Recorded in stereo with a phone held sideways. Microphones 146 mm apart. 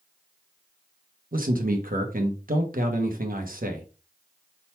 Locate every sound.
1.3 s a man speaking: 75° right (ahead or behind), 1.1 m